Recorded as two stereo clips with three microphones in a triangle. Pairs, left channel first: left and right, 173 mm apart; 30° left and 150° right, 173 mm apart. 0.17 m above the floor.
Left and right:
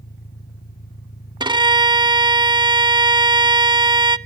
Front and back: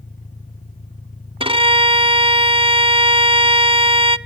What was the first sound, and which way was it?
An engine running, 75° left.